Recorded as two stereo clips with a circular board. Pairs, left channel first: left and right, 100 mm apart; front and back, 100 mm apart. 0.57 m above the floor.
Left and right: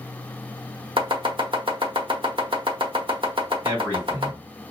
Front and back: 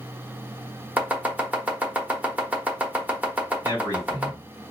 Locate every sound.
1.0 s chopping: 110° right, 1.0 m
3.6 s a man speaking: 145° right, 2 m